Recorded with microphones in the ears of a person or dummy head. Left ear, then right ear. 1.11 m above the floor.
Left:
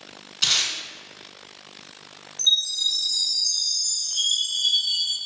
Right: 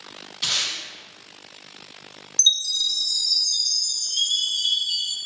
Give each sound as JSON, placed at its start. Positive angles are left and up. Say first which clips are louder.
{"t": 0.4, "sound": "tape being pulled", "louder": "left 2 dB", "side_deg": 15, "distance_m": 0.9}
{"t": 2.4, "sound": "a chime", "louder": "right 1 dB", "side_deg": -55, "distance_m": 1.5}